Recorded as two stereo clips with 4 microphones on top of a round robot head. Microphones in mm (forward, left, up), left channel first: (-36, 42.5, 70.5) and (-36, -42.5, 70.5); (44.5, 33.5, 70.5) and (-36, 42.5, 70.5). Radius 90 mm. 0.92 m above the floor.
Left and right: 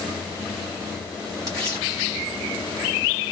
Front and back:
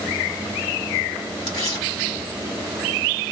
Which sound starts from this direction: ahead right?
Tearing paper, at 1.5 s.